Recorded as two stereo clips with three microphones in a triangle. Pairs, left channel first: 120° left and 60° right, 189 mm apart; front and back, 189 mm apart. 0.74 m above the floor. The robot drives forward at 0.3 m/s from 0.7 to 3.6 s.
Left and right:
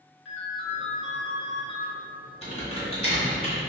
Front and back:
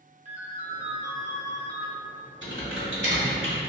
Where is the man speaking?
No man speaking in this recording.